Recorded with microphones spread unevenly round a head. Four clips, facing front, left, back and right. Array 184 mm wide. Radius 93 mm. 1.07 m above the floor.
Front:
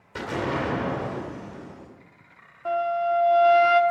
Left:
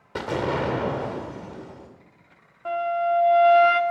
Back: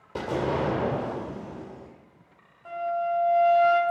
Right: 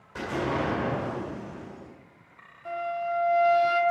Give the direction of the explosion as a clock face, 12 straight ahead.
8 o'clock.